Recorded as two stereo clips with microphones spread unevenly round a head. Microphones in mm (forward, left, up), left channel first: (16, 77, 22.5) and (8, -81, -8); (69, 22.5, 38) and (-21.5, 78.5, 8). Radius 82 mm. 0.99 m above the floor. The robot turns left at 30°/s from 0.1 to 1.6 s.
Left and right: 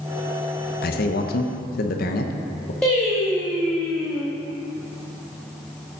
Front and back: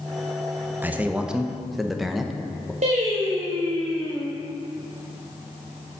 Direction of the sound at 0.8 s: 95° left.